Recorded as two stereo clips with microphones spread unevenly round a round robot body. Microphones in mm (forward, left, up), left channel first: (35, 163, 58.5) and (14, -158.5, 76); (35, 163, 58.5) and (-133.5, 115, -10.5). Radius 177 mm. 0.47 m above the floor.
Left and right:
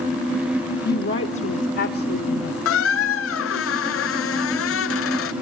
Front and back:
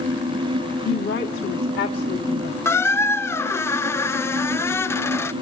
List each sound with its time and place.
0.8 s a woman speaking: 45° left, 1.5 m; by 2.5 s 50° left, 2.5 m
2.6 s a squeak: 110° left, 1.0 m